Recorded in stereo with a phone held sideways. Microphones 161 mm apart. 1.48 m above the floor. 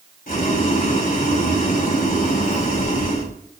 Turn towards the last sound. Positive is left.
turn(degrees=60)  # may be behind; listen again after turning